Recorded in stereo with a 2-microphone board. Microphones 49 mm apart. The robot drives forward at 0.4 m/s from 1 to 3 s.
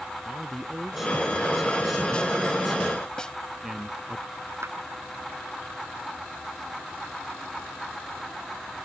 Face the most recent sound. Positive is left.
turn(degrees=-65)  # may be behind; listen again after turning